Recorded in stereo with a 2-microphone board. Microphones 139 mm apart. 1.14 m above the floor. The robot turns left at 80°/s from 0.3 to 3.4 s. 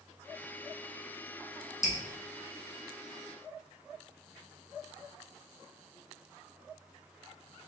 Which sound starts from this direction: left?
Dripping, at 1.8 s.